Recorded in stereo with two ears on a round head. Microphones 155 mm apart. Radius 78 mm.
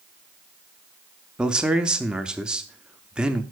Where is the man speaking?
5° right (ahead or behind), 0.8 m.